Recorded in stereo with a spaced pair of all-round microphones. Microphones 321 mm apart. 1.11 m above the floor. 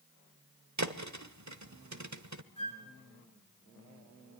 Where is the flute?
75° left (ahead or behind), 5 m.